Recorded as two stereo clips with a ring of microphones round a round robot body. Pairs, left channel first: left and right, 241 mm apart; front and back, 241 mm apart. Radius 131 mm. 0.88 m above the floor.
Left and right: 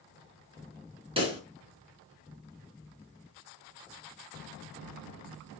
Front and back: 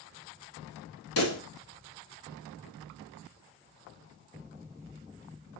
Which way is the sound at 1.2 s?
20° right.